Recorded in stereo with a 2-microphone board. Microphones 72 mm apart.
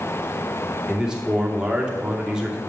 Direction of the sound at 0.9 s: 10° right (ahead or behind).